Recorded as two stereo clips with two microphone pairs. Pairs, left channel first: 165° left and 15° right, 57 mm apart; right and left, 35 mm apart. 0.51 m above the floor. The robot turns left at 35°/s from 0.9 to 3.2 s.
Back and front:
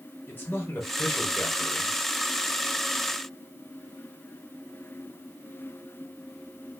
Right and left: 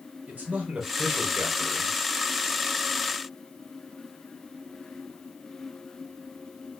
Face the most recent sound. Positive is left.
turn(degrees=40)